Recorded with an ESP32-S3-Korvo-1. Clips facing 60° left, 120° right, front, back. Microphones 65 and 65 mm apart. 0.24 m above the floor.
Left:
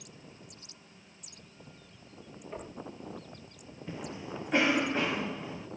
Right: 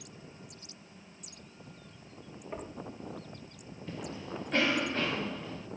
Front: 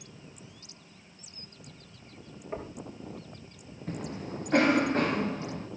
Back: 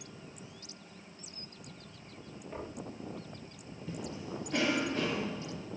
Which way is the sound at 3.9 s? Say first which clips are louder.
Even, front 4 dB; 10° right.